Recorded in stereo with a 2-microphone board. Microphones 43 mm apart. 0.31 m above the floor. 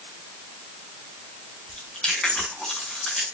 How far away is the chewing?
About 3.5 m.